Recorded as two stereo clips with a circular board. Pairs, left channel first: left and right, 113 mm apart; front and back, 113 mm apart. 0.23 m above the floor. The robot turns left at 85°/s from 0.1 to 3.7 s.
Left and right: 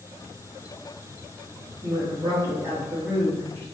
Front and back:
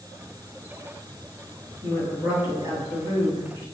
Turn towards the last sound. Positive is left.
turn(degrees=125)